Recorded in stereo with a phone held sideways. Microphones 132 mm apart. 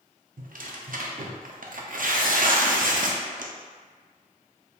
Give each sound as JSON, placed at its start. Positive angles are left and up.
{"t": 0.4, "sound": "tearing paper", "side_deg": -75, "distance_m": 0.5}